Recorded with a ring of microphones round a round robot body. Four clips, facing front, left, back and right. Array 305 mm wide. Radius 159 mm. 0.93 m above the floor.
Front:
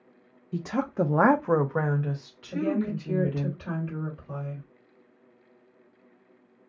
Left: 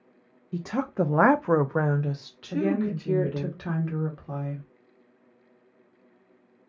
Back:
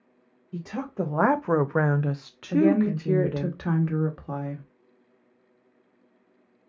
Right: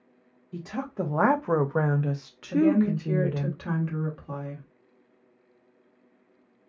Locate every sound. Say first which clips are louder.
0.5 s a woman speaking: left 5 dB, front 4 dB; 40° left, 0.7 m; by 3.5 s 155° right, 1.2 m
2.5 s a woman speaking: right 4 dB, back 7 dB; 175° left, 1.1 m